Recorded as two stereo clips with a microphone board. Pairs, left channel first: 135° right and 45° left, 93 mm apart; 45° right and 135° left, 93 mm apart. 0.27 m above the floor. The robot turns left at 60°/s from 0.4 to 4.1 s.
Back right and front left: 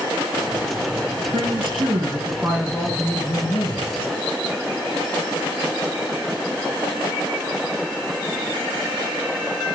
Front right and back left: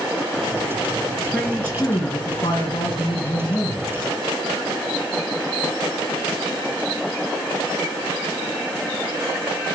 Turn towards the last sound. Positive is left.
turn(degrees=-125)